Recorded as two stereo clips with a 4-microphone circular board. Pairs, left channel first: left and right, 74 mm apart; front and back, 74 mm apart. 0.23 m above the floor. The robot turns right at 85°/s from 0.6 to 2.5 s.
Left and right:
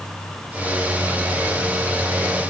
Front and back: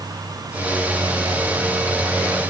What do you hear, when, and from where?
Only background noise.